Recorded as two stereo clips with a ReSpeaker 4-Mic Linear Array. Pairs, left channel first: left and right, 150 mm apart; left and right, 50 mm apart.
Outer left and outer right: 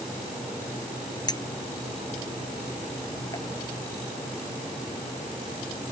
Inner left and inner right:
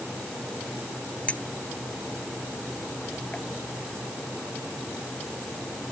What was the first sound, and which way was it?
A clink, 25° left (ahead or behind).